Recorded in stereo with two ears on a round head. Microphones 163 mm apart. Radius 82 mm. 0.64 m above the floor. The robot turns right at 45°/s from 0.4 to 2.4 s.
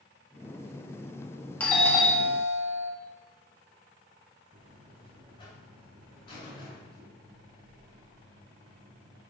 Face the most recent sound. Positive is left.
turn(degrees=30)  # may be behind; listen again after turning